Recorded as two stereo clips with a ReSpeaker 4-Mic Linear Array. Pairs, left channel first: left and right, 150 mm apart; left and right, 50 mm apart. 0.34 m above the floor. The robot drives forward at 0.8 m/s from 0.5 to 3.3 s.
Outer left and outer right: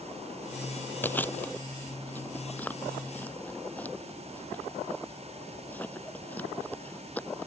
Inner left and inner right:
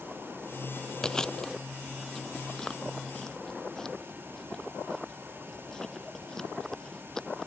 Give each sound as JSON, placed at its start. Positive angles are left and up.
{"t": 1.0, "sound": "chewing", "side_deg": 10}